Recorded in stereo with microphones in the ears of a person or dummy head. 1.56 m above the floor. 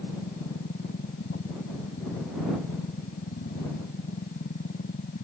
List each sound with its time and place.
0.0 s a machine running: 55° left (ahead or behind)